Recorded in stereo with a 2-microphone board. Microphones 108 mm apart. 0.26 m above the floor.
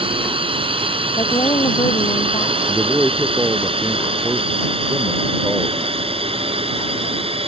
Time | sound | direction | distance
0.0 | a drone | 55° right (ahead or behind) | ?
1.2 | a woman speaking | 45° left (ahead or behind) | ?
2.7 | a man speaking | 15° right (ahead or behind) | ?